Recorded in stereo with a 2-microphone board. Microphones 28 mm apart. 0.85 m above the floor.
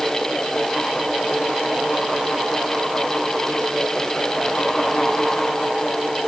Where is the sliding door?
I don't hear a sliding door.